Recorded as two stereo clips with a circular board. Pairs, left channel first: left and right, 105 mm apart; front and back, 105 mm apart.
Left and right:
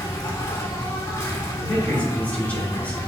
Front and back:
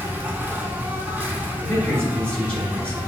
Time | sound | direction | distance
0.0 | an insect | 120° left | 0.8 m
1.6 | a man speaking | 55° left | 1.6 m